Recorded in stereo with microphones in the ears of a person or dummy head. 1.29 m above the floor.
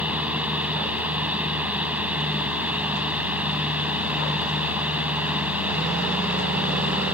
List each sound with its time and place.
0.0 s a fan: 5° right (ahead or behind)